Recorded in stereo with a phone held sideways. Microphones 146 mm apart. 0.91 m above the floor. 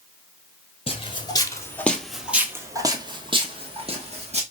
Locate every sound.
0.9 s footsteps: 40° left (ahead or behind), 1.1 m; by 4.4 s 45° right (ahead or behind), 1.8 m